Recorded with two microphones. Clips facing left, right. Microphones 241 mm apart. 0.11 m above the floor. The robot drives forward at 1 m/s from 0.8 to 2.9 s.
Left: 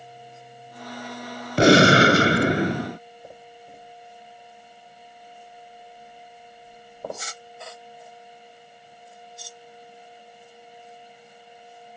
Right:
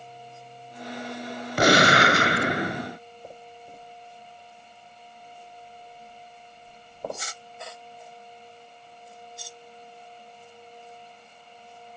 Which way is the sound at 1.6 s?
25° left (ahead or behind).